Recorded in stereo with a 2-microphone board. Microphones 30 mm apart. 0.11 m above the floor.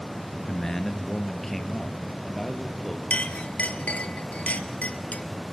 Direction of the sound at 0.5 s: 15° left (ahead or behind).